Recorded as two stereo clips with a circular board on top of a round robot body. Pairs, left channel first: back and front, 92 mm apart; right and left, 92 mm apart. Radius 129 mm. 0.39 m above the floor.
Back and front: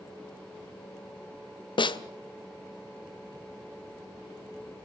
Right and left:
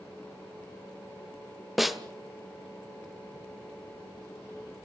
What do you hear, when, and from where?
1.8 s a snare drum: straight behind, 1.6 m